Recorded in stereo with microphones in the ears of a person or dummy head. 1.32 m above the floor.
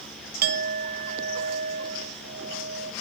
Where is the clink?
50° right (ahead or behind), 1.5 m.